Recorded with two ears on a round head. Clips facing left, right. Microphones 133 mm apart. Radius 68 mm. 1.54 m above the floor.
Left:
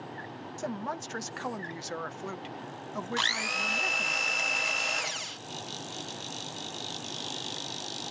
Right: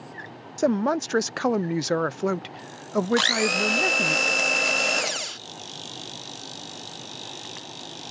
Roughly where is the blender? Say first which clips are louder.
Right 11 dB; right.